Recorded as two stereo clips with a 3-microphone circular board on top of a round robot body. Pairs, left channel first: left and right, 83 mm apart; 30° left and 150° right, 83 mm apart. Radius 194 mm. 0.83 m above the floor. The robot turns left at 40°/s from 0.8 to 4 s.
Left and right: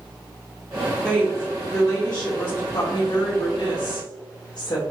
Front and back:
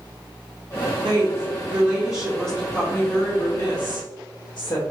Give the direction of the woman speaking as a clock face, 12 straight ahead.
6 o'clock.